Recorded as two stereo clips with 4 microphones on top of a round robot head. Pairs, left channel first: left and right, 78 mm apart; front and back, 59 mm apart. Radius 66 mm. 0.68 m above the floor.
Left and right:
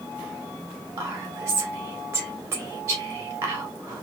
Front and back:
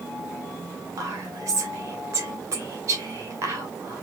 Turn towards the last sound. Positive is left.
turn(degrees=-145)